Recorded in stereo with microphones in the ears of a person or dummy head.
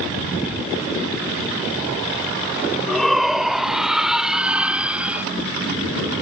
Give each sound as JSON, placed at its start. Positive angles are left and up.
{"t": 2.9, "sound": "a shout", "side_deg": 0}